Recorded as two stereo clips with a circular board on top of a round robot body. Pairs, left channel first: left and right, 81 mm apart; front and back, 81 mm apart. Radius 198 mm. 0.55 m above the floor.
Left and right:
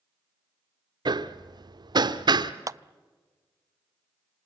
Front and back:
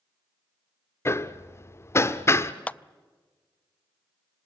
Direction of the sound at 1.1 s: 60° right.